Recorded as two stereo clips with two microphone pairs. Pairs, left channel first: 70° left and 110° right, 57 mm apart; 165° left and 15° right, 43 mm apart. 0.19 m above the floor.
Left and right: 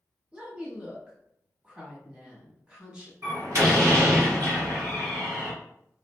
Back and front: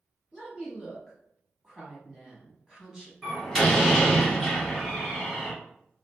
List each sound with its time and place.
0.3 s a woman speaking: 65° right, 1.1 m
3.2 s a door slam: 110° right, 1.6 m